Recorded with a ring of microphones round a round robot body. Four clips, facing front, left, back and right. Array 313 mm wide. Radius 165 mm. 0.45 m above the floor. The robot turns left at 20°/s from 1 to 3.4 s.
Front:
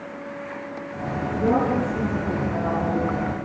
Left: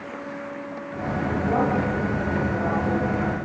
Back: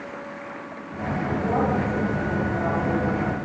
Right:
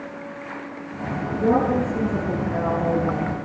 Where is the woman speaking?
55° right, 8.5 m; by 3.4 s 95° right, 8.5 m.